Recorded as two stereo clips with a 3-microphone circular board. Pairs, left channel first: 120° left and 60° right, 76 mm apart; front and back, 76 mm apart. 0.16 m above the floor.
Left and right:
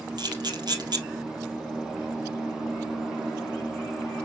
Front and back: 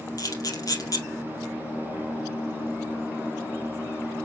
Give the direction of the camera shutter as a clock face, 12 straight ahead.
1 o'clock.